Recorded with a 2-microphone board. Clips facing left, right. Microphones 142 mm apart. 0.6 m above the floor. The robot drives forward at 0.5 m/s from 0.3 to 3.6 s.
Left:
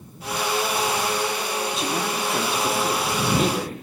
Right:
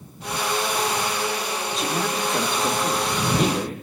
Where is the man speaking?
Centre (ahead or behind), 1.4 m.